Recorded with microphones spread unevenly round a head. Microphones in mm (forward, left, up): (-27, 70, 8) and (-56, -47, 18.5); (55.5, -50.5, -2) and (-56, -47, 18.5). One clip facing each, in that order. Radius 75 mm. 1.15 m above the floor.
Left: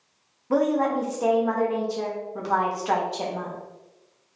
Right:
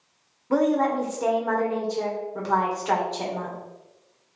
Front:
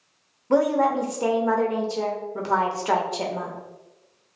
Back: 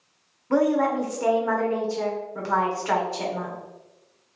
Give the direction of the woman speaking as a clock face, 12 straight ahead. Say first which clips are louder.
Right 1 dB, front 1 dB; 12 o'clock.